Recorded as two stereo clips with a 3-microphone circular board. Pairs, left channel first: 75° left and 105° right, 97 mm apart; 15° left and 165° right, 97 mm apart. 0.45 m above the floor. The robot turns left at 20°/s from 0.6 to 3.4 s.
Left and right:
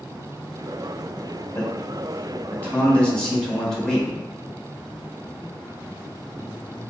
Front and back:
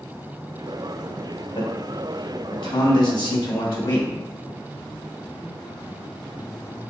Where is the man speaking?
30° left, 1.3 m; by 4.1 s 10° right, 1.3 m.